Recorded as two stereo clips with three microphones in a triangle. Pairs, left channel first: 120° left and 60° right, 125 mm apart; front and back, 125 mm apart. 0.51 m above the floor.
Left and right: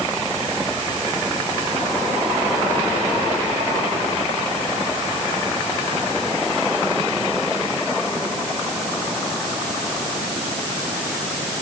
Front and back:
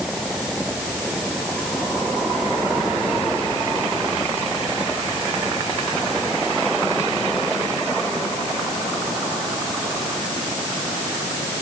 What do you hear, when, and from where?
Only background noise.